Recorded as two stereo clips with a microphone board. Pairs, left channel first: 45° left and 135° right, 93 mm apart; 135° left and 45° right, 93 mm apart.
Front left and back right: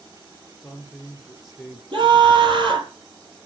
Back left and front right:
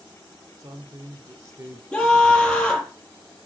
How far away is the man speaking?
About 2 m.